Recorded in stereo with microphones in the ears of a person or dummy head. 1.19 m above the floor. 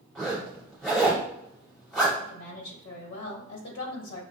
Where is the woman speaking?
80° left, 1.2 m.